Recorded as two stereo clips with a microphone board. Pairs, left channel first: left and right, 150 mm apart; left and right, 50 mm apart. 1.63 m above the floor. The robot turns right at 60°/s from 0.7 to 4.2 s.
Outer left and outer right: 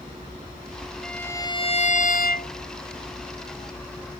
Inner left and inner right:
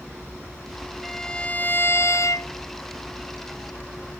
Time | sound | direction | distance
1.0 | a violin | straight ahead | ?